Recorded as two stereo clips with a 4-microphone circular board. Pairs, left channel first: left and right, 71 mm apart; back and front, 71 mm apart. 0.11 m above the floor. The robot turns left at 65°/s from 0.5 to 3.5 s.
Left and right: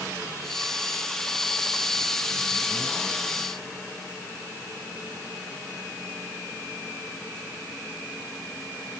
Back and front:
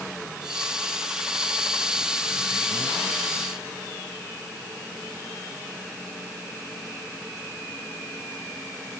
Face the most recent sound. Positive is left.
No sound to turn to.